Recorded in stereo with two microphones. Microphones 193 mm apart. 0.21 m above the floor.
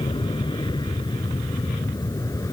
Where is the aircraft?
25° left (ahead or behind); by 2.5 s 15° left (ahead or behind).